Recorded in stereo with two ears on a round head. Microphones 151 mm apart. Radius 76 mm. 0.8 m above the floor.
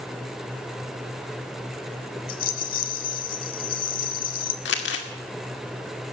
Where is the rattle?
55° left (ahead or behind), 1.1 m.